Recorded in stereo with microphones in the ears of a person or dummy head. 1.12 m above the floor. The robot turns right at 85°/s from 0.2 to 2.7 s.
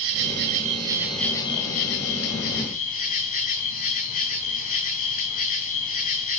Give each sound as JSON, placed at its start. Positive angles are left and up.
{"t": 0.0, "sound": "an insect", "azimuth_deg": -80, "distance_m": 2.0}